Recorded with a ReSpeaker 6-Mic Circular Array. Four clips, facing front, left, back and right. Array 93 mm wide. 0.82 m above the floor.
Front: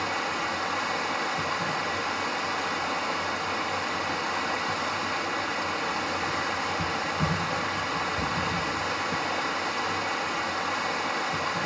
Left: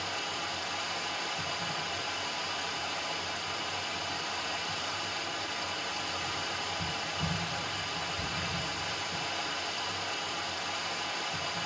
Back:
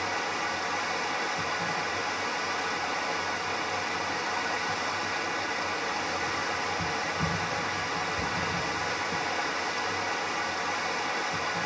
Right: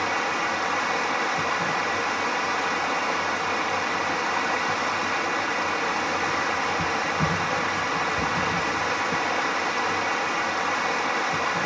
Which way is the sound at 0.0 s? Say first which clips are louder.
Right 12 dB, front 2 dB; 75° right.